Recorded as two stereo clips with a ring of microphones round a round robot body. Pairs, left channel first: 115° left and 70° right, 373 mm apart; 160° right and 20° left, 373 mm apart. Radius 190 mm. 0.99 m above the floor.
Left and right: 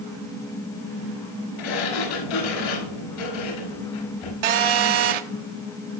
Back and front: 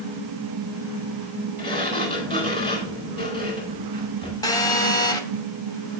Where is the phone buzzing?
75° right, 1.0 m.